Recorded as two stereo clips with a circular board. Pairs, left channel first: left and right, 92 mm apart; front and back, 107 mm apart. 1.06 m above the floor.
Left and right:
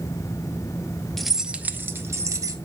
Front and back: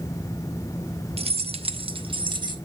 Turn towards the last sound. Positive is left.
turn(degrees=-140)